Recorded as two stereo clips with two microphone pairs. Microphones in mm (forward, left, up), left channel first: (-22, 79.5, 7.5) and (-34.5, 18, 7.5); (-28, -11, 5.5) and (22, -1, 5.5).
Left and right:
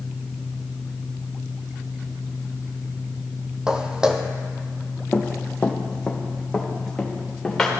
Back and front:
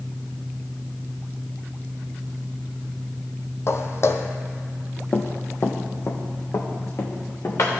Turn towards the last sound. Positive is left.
turn(degrees=160)